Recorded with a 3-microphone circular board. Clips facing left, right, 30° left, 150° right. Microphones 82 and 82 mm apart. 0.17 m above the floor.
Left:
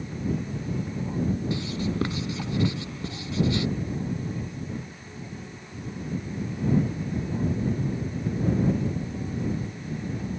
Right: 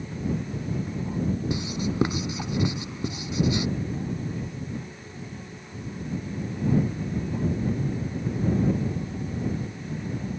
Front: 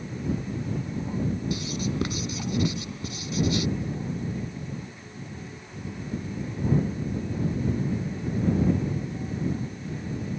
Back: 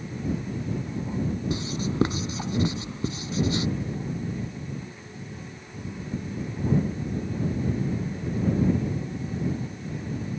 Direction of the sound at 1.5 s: 145° right.